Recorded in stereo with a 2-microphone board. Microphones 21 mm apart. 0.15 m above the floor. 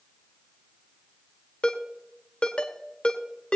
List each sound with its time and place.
1.6 s a ringtone: 50° left (ahead or behind), 1.5 m